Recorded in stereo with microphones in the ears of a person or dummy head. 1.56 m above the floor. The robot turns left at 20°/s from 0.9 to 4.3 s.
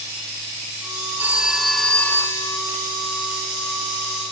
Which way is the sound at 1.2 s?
10° right (ahead or behind).